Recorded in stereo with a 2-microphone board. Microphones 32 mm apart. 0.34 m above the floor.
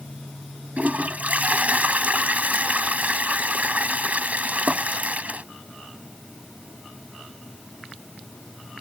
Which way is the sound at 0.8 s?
50° right (ahead or behind).